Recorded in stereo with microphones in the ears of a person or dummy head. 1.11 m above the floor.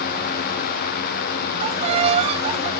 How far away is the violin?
About 1.1 m.